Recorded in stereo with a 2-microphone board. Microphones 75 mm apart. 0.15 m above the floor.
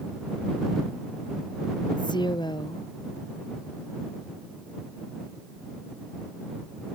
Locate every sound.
2.0 s a woman speaking: 85° left